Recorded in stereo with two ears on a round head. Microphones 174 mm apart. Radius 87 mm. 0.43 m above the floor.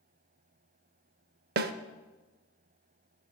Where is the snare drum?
55° right (ahead or behind), 0.5 m.